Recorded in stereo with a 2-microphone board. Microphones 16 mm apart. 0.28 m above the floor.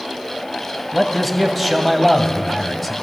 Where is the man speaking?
5° left (ahead or behind), 1.9 m.